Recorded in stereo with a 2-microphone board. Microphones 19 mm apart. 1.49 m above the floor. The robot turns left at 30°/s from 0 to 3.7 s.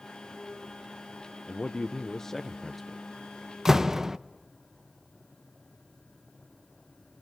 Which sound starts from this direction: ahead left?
A man speaking, at 1.5 s.